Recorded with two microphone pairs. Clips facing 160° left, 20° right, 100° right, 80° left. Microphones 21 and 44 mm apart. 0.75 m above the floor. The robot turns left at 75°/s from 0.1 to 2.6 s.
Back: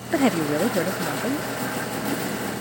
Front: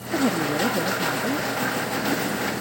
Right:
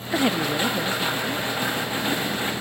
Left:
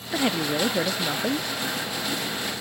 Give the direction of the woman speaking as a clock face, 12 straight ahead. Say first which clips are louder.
Back 2 dB, right 2 dB; 6 o'clock.